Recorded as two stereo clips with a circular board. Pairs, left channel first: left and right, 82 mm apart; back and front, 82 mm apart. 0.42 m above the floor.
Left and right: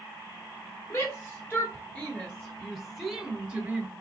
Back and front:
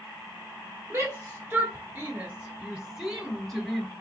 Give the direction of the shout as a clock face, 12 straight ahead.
10 o'clock.